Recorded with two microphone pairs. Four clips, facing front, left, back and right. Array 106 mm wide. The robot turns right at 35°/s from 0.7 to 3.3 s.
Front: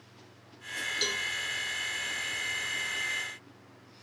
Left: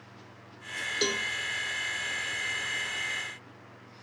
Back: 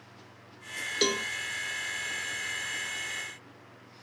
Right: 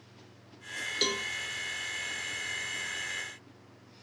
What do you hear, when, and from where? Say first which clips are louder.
1.0 s a cowbell: left 2 dB, back 10 dB; straight behind, 0.5 m; by 1.3 s 170° right, 0.5 m